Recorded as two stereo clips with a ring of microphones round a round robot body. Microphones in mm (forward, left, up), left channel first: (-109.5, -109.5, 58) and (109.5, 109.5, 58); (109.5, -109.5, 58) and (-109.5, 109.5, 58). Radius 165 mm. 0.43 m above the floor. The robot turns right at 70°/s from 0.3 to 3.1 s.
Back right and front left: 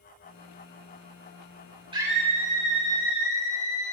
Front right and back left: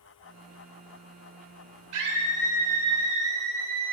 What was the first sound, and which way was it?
A scream, 120° left.